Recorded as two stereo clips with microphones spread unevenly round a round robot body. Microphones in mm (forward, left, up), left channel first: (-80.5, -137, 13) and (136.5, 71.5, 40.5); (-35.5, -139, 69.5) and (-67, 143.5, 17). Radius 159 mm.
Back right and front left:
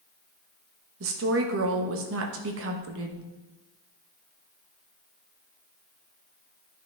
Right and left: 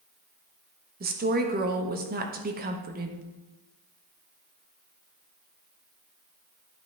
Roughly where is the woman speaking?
Left.